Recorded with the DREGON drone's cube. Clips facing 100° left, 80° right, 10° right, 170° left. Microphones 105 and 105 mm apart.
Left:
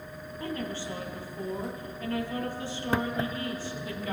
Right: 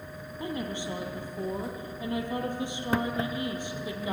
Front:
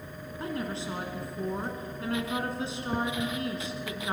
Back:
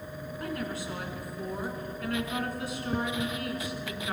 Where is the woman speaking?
30° right, 1.7 m.